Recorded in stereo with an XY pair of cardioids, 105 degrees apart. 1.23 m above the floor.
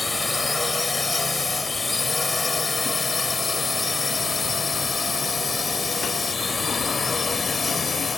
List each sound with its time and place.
0.0 s a drone: 20° left; by 8.2 s 35° left